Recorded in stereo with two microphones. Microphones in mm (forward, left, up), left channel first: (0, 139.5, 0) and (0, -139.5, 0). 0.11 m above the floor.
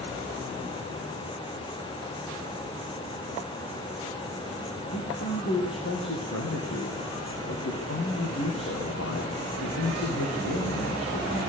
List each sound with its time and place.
4.9 s a man speaking: 55° left (ahead or behind), 7 m